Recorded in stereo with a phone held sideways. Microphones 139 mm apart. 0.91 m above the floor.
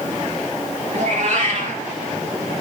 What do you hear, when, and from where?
0.9 s a cat meowing: 55° right (ahead or behind), 3.5 m